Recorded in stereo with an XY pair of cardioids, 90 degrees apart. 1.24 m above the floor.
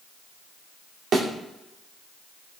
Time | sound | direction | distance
1.1 | a thud | 65° right | 1.7 m